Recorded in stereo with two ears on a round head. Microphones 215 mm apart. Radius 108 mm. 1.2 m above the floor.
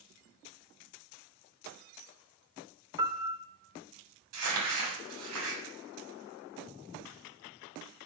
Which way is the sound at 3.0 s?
20° right (ahead or behind).